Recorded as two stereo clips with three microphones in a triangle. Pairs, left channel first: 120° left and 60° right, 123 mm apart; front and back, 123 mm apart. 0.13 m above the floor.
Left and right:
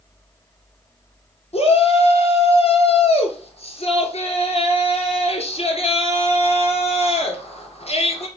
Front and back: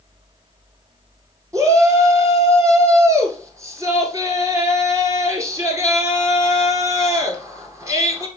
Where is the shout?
120° left, 2 m.